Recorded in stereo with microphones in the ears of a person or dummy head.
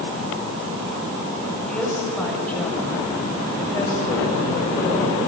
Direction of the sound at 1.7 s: Centre (ahead or behind).